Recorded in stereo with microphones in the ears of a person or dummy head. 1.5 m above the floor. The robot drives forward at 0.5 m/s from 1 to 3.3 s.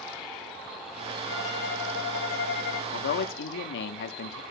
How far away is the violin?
About 4 m.